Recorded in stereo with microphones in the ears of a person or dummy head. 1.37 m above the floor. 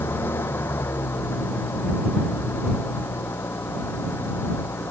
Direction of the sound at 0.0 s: 15° left (ahead or behind).